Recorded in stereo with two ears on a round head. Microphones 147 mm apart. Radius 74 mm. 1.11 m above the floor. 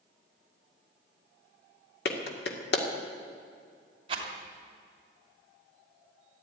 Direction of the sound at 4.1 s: 30° right (ahead or behind).